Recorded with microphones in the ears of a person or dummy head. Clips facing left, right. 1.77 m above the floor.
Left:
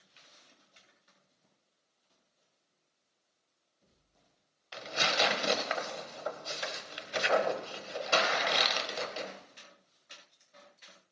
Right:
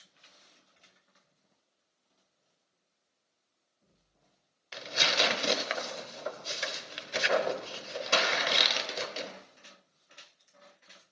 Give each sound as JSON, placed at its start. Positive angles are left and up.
{"t": 4.7, "sound": "tearing paper", "side_deg": -25, "distance_m": 1.0}